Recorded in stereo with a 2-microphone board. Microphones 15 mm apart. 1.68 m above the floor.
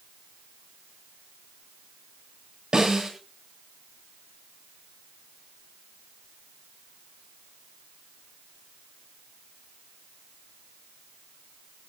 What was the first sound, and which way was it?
A snare drum, 55° right (ahead or behind).